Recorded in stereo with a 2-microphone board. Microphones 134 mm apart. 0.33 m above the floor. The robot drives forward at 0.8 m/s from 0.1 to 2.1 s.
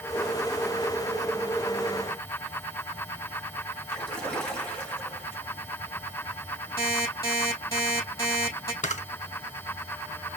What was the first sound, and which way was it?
A splash, 10° left (ahead or behind).